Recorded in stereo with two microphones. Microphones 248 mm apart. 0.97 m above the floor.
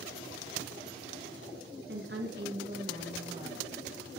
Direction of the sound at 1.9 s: 45° right (ahead or behind).